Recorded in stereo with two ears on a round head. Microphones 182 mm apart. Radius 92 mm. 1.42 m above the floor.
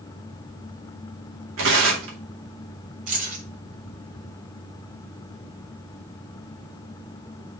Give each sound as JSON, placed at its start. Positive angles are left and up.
{"t": 1.6, "sound": "tearing paper", "side_deg": -75, "distance_m": 2.5}
{"t": 3.1, "sound": "keys jangling", "side_deg": -40, "distance_m": 3.0}